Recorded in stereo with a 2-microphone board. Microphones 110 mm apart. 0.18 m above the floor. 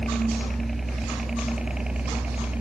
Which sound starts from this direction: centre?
A helicopter, at 0.0 s.